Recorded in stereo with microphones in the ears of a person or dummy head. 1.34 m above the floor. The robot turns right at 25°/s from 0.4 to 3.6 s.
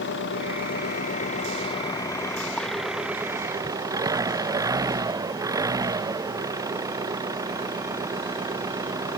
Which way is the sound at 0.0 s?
120° left.